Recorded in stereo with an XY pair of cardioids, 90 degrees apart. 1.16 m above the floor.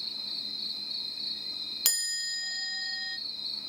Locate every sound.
0.0 s an insect: 20° left, 1.1 m
1.9 s a chime: 20° left, 0.6 m